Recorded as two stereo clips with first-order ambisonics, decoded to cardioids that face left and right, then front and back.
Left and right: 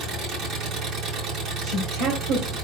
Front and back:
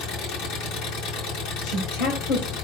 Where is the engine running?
35° right, 4 m.